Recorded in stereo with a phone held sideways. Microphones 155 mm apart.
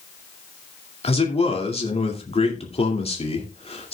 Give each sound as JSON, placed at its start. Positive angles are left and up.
{"t": 1.0, "sound": "a man speaking", "side_deg": 40, "distance_m": 2.0}